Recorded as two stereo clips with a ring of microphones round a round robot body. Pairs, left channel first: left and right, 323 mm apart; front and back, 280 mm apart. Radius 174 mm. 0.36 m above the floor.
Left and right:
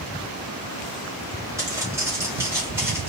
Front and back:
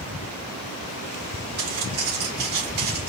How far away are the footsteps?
About 8 m.